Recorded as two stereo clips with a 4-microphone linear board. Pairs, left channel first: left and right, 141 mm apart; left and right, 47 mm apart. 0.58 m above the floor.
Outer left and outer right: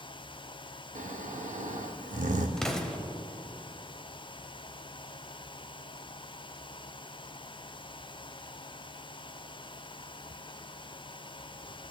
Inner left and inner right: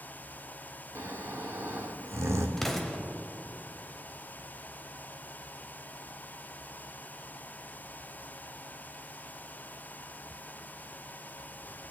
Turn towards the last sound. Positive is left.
turn(degrees=5)  # may be behind; listen again after turning